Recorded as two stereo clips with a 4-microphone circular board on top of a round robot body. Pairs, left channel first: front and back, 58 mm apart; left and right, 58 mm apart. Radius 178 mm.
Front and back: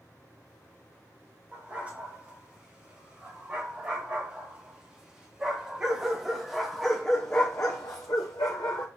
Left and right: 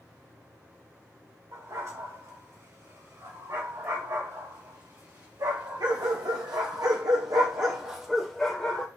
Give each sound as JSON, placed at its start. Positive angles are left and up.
{"t": 1.5, "sound": "a dog barking", "azimuth_deg": -115, "distance_m": 4.0}